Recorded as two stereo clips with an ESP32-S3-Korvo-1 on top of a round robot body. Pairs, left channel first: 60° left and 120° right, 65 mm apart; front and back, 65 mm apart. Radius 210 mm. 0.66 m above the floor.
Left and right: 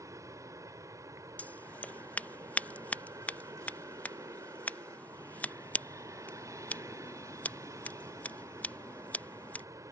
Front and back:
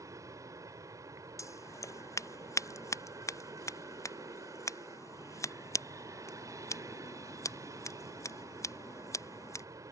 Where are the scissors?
Straight ahead.